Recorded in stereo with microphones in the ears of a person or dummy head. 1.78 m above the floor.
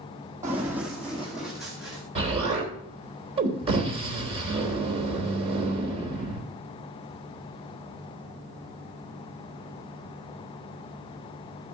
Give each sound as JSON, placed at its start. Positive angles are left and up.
{"t": 0.4, "sound": "running footsteps", "side_deg": -15, "distance_m": 3.5}
{"t": 2.1, "sound": "an explosion", "side_deg": -30, "distance_m": 3.0}